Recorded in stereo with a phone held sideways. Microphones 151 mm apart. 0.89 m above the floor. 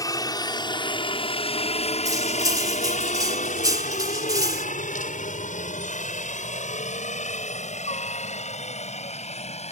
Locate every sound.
0.0 s a helicopter: 25° left (ahead or behind); by 9.7 s 50° left (ahead or behind)
2.0 s cutlery clinking: 25° right (ahead or behind)